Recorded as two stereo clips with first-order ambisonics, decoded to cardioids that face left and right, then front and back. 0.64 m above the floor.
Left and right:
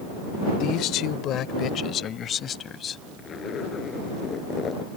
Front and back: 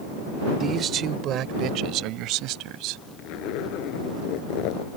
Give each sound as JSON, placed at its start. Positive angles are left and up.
{"t": 0.6, "sound": "a man speaking", "azimuth_deg": 120}
{"t": 3.2, "sound": "a zipper", "azimuth_deg": 25}